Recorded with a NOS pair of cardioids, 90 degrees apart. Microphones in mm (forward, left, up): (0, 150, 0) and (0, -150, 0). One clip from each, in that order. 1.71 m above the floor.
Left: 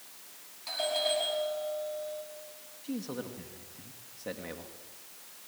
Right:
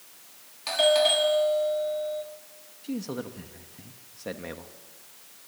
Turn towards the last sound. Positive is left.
turn(degrees=-30)